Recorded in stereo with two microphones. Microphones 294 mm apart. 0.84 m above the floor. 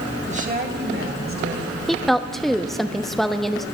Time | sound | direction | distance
0.3 | a woman speaking | 20° right (ahead or behind) | 1.4 m
1.9 | a woman speaking | centre (ahead or behind) | 0.8 m